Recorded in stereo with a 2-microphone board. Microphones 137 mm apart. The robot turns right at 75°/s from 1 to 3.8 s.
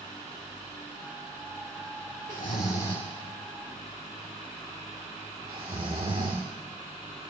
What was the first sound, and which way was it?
Snoring, 85° left.